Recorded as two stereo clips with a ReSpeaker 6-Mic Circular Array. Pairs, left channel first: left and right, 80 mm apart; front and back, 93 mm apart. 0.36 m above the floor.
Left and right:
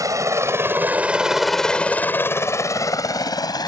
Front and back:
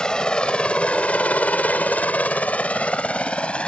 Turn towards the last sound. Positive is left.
turn(degrees=75)